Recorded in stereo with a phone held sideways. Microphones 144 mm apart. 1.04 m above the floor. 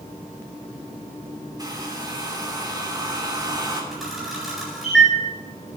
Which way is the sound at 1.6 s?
25° right (ahead or behind).